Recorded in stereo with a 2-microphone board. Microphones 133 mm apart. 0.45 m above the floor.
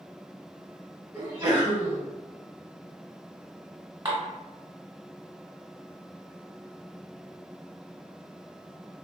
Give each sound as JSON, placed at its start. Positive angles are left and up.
{"t": 1.1, "sound": "a sneeze", "side_deg": -30, "distance_m": 1.5}
{"t": 4.0, "sound": "dishes clattering", "side_deg": -30, "distance_m": 1.2}